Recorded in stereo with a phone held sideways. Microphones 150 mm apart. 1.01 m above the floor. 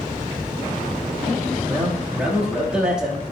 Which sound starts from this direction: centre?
A man speaking, at 1.7 s.